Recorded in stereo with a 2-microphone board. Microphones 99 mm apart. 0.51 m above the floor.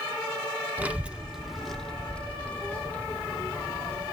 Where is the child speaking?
15° right (ahead or behind), 0.8 m; by 4.0 s 20° left (ahead or behind), 1.9 m.